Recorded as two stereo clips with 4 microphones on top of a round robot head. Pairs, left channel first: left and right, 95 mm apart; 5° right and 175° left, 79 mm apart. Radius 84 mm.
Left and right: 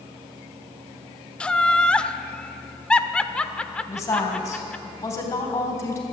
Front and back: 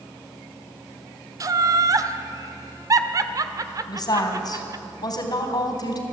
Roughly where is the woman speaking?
Ahead left.